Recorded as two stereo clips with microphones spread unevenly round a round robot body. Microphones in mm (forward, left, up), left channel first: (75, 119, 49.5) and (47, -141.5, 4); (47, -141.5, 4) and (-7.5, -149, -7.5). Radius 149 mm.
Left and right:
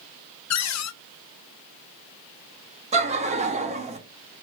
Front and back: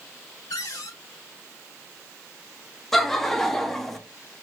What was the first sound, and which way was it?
A cupboard door, 55° left.